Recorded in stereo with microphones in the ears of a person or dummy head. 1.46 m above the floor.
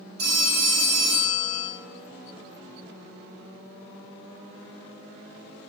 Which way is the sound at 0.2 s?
70° right (ahead or behind).